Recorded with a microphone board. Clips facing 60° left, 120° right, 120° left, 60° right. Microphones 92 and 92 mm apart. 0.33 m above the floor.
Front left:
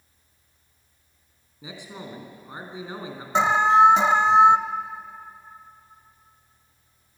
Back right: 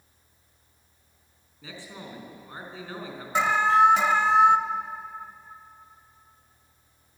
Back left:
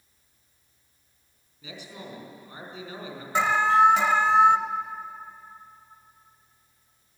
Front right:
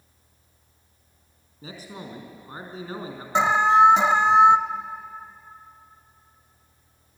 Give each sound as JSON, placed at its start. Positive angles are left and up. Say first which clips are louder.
{"t": 1.6, "sound": "a man speaking", "louder": "front left 3 dB, front right 3 dB", "azimuth_deg": -10, "distance_m": 4.0}
{"t": 3.4, "sound": "an alarm", "louder": "front left 3 dB, front right 3 dB", "azimuth_deg": 0, "distance_m": 0.8}